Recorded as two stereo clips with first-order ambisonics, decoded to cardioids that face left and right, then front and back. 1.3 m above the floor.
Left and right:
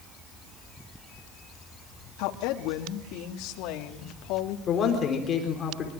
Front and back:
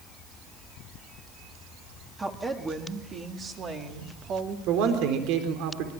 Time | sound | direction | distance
2.2 | a woman speaking | 100° left | 3 m
4.7 | a man speaking | 155° left | 4 m